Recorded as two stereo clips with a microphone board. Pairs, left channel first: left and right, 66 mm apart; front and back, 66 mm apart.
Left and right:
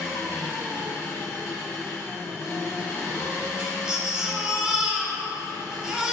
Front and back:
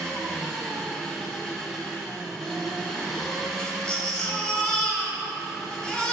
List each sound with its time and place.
0.0 s an engine running: 70° left, 1.7 m
3.6 s a baby crying: 35° right, 1.0 m